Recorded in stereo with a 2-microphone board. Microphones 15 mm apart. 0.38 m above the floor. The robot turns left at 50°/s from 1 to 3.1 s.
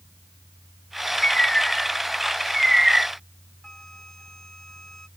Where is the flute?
45° left (ahead or behind).